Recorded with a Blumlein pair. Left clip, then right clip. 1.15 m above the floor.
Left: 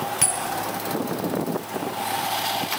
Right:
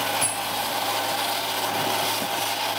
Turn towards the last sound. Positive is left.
turn(degrees=25)